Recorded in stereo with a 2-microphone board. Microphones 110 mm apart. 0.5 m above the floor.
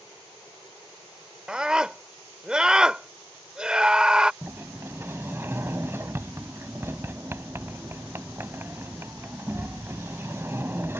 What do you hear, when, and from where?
1.5 s a scream: 10° right (ahead or behind)
4.4 s a sliding door: 25° right (ahead or behind)